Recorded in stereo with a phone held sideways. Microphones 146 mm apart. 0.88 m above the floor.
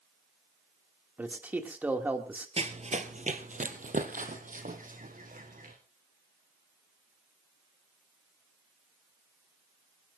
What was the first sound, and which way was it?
A man speaking, 10° right (ahead or behind).